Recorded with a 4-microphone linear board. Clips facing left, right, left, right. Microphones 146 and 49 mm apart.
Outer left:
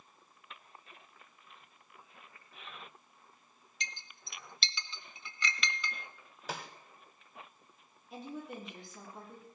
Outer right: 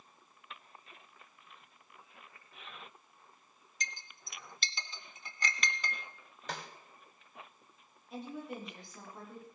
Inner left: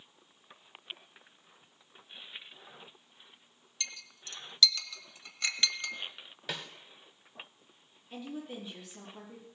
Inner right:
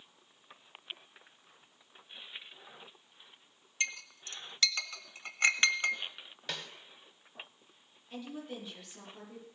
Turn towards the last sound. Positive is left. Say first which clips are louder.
# outer right 1 dB, inner left 1 dB
turn(degrees=0)  # may be behind; listen again after turning